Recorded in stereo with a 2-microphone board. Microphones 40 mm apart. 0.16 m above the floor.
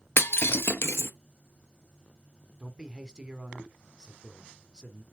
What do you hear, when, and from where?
0.2 s breaking glass: 70° left (ahead or behind), 0.9 m
2.6 s a man speaking: 20° right (ahead or behind), 1.4 m